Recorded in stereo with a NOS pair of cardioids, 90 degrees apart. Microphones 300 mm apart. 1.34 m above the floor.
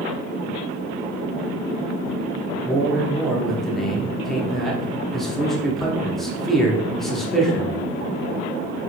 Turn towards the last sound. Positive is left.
turn(degrees=0)